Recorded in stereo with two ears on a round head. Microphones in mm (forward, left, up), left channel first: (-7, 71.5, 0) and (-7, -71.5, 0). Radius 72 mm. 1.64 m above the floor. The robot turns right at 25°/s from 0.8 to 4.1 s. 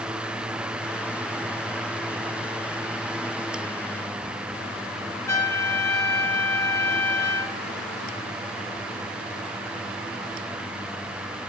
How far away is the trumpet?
About 1.1 m.